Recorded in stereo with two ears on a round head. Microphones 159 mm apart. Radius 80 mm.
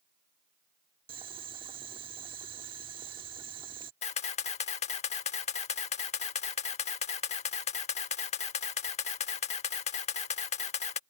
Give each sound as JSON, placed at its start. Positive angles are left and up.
{"t": 1.1, "sound": "boiling", "side_deg": -30}
{"t": 4.0, "sound": "a camera shutter", "side_deg": 40}